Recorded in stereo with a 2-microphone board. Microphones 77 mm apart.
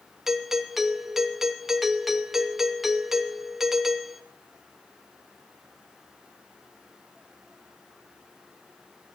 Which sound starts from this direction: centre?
A doorbell, at 0.3 s.